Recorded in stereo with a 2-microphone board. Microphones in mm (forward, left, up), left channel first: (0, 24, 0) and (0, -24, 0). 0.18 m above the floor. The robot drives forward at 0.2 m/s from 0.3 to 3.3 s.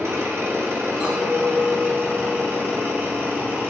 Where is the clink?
30° right (ahead or behind), 1.1 m; by 3.6 s 40° right (ahead or behind), 0.8 m.